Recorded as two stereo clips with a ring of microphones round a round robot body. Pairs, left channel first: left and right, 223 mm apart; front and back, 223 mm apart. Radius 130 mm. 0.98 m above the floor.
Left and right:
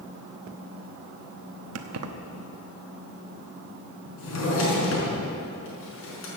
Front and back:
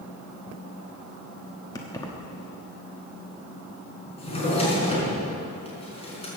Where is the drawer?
65° left, 5 m.